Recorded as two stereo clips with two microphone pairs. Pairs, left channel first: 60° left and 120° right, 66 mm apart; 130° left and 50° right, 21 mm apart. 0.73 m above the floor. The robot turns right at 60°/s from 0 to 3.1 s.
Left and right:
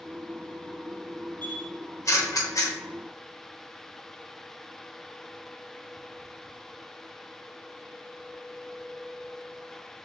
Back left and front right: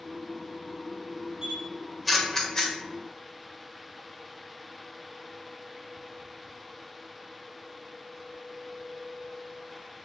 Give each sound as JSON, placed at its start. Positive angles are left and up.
{"t": 1.4, "sound": "a camera shutter", "azimuth_deg": 0, "distance_m": 0.6}